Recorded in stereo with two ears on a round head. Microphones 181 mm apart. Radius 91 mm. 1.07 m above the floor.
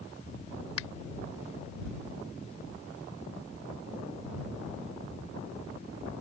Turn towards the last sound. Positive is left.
turn(degrees=85)